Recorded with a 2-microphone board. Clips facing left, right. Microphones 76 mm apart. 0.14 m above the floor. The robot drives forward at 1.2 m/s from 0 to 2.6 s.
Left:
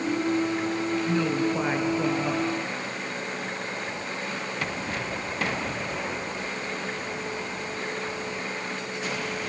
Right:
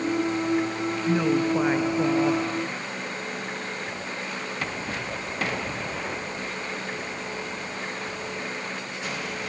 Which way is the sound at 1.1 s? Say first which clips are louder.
Right 5 dB; 15° right (ahead or behind).